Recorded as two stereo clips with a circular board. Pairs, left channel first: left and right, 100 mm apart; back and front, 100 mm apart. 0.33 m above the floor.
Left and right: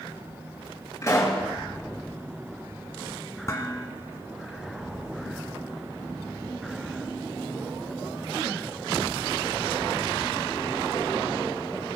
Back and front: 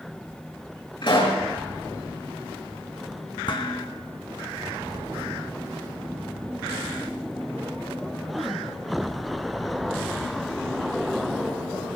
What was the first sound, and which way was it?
A pop, 150° left.